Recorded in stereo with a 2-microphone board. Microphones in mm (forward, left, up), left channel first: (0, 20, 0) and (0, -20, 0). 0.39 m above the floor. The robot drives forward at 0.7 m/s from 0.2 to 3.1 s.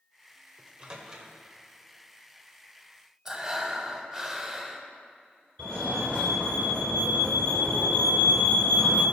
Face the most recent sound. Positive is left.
turn(degrees=20)  # may be behind; listen again after turning